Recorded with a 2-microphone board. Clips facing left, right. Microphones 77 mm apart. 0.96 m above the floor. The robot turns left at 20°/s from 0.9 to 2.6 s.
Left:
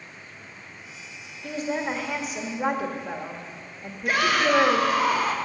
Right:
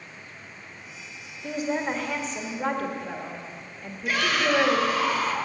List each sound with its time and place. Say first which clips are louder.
1.4 s a woman speaking: right 1 dB; 5° right (ahead or behind), 1.4 m; by 5.0 s 15° left (ahead or behind), 1.4 m
4.0 s a shout: left 3 dB; 50° left (ahead or behind), 1.4 m